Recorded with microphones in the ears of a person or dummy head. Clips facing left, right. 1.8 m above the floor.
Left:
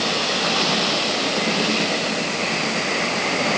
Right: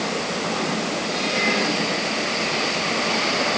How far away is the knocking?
I don't hear knocking.